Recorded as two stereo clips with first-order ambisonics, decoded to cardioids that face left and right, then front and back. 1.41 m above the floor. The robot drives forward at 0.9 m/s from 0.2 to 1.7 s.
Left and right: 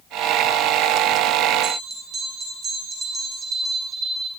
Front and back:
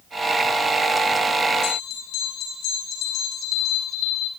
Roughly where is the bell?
Ahead right.